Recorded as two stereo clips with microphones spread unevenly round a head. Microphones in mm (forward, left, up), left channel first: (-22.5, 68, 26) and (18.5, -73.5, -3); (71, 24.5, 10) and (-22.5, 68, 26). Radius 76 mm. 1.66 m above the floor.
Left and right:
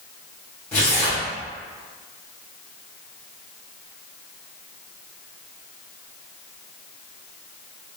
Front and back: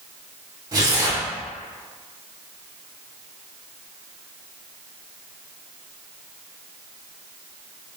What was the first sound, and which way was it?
Tearing paper, 165° left.